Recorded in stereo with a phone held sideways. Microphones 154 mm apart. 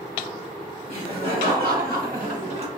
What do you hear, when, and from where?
0.9 s laughter: 85° right, 2 m; by 2.7 s 35° right (ahead or behind), 0.8 m